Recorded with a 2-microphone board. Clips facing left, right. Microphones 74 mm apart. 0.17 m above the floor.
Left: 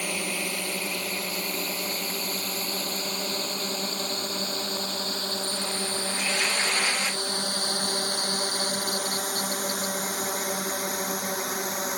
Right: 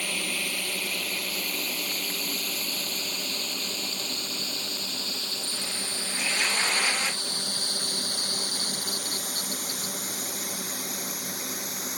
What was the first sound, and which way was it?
A drone, 20° left (ahead or behind).